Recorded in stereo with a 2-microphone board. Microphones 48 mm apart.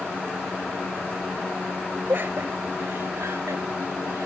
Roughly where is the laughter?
Right.